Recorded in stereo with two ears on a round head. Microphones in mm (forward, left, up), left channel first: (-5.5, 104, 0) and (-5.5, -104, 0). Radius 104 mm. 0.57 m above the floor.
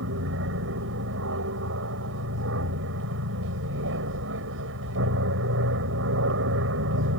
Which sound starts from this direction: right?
An aircraft, at 0.0 s.